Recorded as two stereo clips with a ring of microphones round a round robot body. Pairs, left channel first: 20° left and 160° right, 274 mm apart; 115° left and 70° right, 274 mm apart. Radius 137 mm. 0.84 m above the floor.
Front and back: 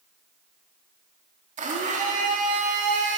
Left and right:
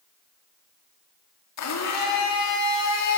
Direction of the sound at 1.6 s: 140° left.